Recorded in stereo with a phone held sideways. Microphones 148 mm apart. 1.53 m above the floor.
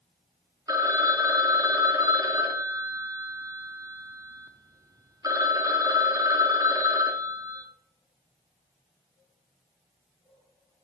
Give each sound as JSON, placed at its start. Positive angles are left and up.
{"t": 0.7, "sound": "a phone ringing", "side_deg": -25, "distance_m": 0.5}